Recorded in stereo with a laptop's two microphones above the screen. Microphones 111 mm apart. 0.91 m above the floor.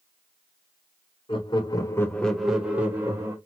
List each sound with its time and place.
1.3 s laughter: 50° left (ahead or behind), 0.8 m; by 3.4 s 25° right (ahead or behind), 1.2 m